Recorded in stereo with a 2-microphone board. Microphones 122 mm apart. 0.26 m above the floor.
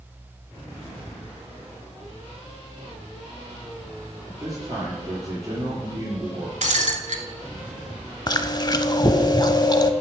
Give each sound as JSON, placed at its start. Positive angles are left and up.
{"t": 4.2, "sound": "a man speaking", "side_deg": -25, "distance_m": 4.5}
{"t": 6.6, "sound": "breaking glass", "side_deg": -75, "distance_m": 1.1}
{"t": 8.3, "sound": "chewing", "side_deg": 35, "distance_m": 0.5}